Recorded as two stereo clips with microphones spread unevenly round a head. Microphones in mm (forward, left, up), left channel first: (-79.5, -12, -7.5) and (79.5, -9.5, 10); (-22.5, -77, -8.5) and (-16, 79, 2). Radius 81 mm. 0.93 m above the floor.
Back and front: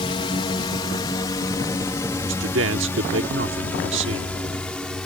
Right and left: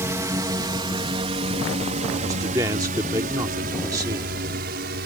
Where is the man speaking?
15° left.